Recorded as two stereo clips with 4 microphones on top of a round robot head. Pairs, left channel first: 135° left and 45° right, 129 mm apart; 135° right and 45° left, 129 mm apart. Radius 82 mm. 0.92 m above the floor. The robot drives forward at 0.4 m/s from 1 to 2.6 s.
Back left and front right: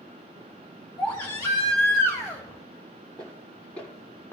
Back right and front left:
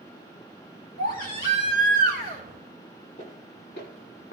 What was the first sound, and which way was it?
A baby crying, 155° right.